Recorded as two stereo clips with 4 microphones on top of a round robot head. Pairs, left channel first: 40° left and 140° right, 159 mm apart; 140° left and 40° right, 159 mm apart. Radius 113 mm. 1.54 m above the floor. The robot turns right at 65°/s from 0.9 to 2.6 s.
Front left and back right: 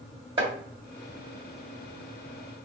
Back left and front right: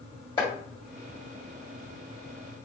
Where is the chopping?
Straight behind, 1.4 m.